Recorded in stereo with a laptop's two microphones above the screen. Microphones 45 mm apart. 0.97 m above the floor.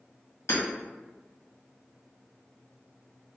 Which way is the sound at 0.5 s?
75° left (ahead or behind).